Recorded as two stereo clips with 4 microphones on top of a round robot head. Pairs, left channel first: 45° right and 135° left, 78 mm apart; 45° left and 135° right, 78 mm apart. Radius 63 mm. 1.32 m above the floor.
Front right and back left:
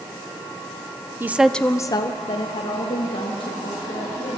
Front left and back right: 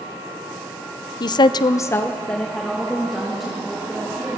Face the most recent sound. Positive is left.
turn(degrees=-50)